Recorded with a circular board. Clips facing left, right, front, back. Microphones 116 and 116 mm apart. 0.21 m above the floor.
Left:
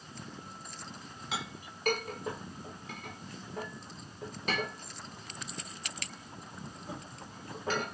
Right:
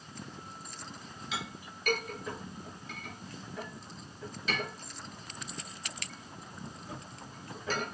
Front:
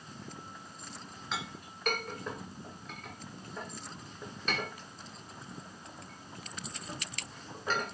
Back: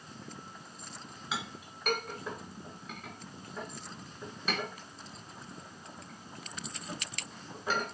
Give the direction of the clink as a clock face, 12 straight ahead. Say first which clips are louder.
Left 1 dB, back 1 dB; 9 o'clock.